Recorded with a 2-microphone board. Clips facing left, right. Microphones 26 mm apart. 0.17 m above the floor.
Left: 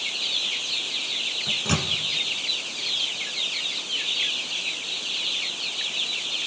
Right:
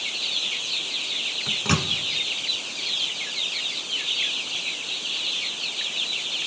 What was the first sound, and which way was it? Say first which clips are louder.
A microwave: right 2 dB; 20° right (ahead or behind).